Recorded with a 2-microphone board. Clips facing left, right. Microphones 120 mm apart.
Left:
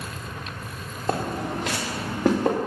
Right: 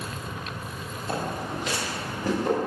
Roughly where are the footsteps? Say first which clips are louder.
Left 4 dB; left.